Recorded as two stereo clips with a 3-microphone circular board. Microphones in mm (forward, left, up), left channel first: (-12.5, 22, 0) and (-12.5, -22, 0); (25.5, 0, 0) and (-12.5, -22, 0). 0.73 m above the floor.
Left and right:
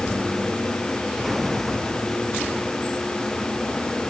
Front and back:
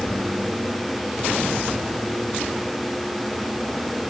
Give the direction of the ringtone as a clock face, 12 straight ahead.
I don't hear a ringtone.